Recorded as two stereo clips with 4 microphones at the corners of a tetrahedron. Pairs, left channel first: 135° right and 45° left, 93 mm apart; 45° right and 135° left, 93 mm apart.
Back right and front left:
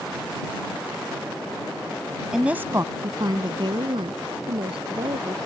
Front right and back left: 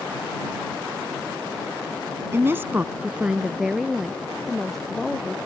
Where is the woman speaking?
125° left; by 5.4 s 45° left.